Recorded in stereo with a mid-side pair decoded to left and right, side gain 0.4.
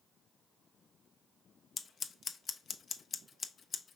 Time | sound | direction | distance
1.8 | scissors | 50° left | 0.5 m